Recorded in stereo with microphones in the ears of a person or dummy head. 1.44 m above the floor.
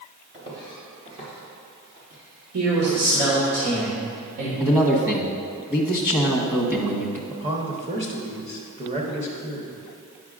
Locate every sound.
0.3 s footsteps: 20° right (ahead or behind), 1.5 m; by 3.0 s 40° right (ahead or behind), 4.5 m
2.5 s a man speaking: 80° right, 1.6 m
4.6 s a man speaking: 10° right (ahead or behind), 1.0 m
7.3 s a man speaking: 30° right (ahead or behind), 1.0 m